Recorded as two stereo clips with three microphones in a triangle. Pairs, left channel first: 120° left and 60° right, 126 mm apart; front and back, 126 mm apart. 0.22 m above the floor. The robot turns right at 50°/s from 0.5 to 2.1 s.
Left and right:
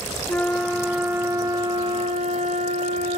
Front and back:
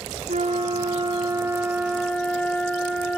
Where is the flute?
165° right, 0.8 m; by 3.2 s 85° right, 0.8 m.